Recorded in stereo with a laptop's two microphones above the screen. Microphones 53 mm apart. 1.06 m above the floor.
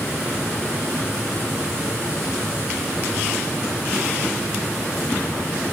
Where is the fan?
45° left (ahead or behind), 4 m.